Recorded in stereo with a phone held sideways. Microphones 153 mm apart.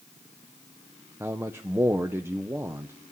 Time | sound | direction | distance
1.2 | a man speaking | 15° right (ahead or behind) | 0.6 m